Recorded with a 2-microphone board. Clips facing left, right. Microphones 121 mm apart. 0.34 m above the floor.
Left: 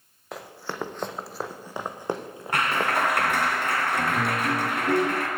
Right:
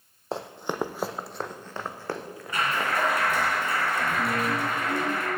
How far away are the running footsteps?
About 0.9 m.